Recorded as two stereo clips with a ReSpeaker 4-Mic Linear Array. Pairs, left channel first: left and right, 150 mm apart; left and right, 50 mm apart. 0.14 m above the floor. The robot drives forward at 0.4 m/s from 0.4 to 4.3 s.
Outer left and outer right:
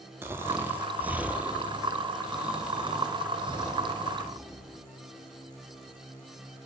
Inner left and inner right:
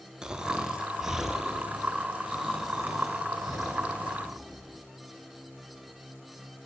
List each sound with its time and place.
0.2 s snoring: 20° right (ahead or behind), 0.5 m; by 4.8 s 5° right (ahead or behind), 2 m